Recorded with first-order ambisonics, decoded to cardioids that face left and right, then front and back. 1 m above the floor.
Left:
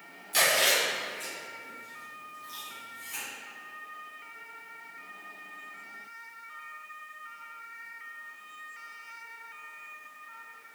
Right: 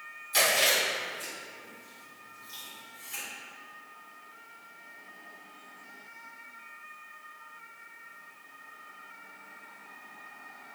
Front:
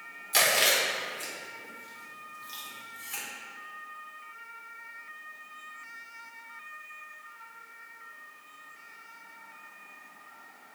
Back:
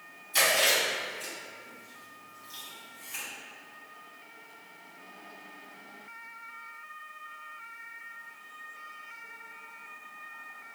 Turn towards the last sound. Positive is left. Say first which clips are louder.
# even, even
turn(degrees=0)